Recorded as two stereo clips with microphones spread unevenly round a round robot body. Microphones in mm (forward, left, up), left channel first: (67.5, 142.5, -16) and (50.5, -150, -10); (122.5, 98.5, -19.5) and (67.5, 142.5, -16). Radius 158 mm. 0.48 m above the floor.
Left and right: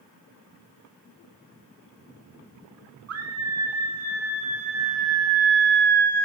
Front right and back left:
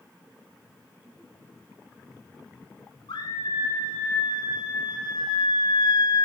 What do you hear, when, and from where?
3.1 s a scream: 55° right, 5.5 m; by 6.2 s 35° right, 2.5 m